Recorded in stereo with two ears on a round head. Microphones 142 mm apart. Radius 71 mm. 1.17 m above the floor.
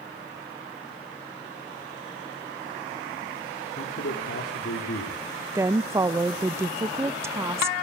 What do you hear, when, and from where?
3.8 s a man speaking: 75° left (ahead or behind), 4 m
5.5 s a woman speaking: 15° right (ahead or behind), 0.7 m